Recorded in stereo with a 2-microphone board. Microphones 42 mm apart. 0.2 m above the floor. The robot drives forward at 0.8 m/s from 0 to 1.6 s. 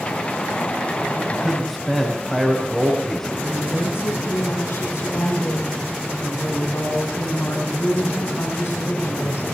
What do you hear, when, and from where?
1.3 s a man speaking: 5° left (ahead or behind), 5.5 m
3.5 s a woman speaking: 80° left, 9.5 m